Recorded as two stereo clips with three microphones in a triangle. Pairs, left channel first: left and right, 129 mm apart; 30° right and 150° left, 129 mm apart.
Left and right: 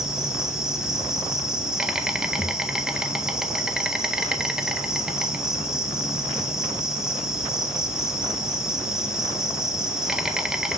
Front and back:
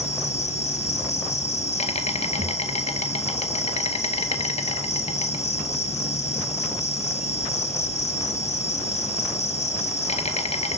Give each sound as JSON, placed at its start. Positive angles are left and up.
{"t": 0.0, "sound": "an insect", "azimuth_deg": -5, "distance_m": 0.8}
{"t": 2.4, "sound": "a thud", "azimuth_deg": 160, "distance_m": 1.3}